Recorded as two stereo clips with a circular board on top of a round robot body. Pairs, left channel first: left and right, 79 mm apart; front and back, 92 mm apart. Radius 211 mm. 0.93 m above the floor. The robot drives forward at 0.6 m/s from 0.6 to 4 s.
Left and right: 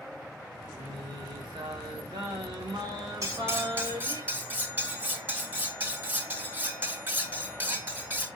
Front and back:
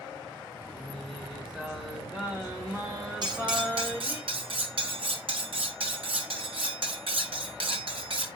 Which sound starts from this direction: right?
Singing, at 0.7 s.